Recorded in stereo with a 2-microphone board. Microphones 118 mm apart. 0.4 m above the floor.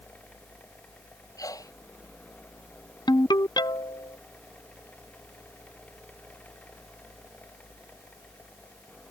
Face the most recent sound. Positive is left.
turn(degrees=40)  # may be behind; listen again after turning